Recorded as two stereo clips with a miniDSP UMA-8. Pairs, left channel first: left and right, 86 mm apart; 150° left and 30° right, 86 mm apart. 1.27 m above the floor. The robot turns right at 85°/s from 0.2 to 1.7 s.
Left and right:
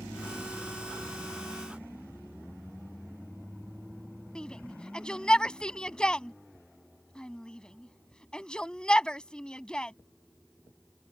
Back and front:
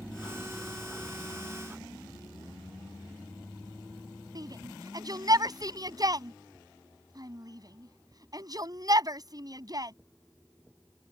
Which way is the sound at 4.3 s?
10° left.